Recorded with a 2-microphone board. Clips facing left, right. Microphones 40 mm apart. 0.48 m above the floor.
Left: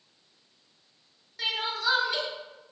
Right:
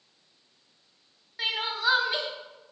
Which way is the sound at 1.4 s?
20° right (ahead or behind).